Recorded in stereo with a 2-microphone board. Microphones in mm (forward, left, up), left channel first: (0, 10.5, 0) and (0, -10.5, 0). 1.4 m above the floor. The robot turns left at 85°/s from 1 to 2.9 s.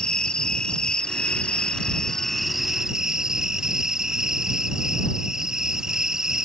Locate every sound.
0.0 s an insect: 130° left; by 6.5 s 30° right